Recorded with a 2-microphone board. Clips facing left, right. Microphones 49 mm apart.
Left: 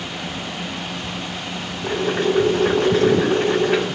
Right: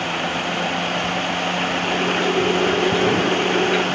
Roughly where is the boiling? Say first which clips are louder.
Left 4 dB; left.